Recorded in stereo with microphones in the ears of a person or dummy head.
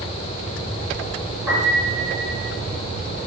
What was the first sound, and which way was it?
A piano, 15° right (ahead or behind).